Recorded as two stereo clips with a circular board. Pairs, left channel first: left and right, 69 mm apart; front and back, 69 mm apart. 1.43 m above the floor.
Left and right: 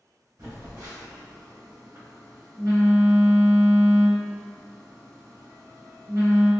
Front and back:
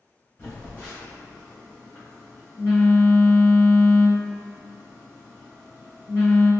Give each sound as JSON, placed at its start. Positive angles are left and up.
{"t": 0.4, "sound": "a phone buzzing", "azimuth_deg": -60, "distance_m": 1.9}